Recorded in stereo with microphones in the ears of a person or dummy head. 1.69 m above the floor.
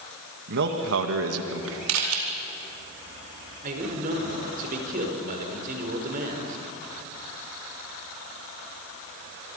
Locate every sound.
0.5 s a man speaking: 55° right (ahead or behind), 2 m; by 1.8 s 70° right (ahead or behind), 2.5 m
1.9 s a camera shutter: 80° right, 4.5 m
3.6 s a man speaking: 50° right (ahead or behind), 5 m